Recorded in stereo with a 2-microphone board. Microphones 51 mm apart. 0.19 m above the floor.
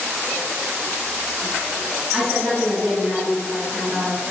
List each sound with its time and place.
2.1 s a woman speaking: 10° right (ahead or behind), 1.5 m